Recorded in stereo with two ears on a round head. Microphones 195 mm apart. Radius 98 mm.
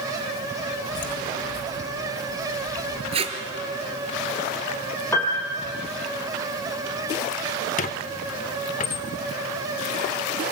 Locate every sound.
0.9 s footsteps: 55° left (ahead or behind), 1.5 m; by 3.0 s 50° left (ahead or behind), 3.5 m
3.1 s tape being pulled: 30° right (ahead or behind), 2 m
5.1 s a piano: 10° left (ahead or behind), 3 m
7.8 s a squeak: 35° left (ahead or behind), 0.8 m